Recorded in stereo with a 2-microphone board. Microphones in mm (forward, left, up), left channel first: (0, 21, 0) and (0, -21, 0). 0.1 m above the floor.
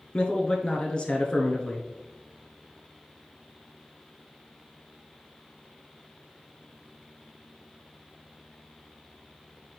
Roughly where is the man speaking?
Left.